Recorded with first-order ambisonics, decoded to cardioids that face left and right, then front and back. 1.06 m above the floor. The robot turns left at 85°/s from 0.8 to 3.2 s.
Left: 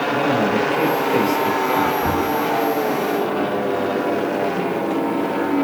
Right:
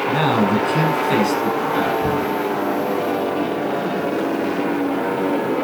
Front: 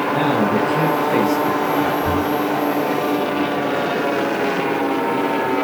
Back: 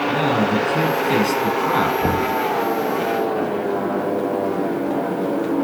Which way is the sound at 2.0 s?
160° right.